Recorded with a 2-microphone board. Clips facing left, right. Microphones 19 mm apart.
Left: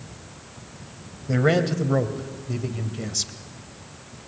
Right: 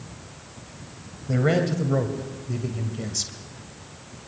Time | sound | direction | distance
1.3 | a man speaking | 15° left (ahead or behind) | 1.8 m